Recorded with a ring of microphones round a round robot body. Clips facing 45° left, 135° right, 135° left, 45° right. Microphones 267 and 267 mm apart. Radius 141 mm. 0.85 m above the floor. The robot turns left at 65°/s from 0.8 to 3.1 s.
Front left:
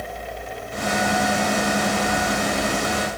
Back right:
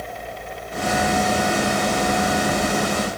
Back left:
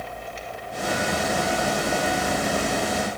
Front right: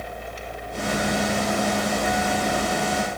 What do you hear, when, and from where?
Only background noise.